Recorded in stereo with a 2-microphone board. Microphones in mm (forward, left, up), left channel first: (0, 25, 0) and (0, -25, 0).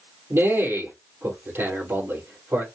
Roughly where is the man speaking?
Right.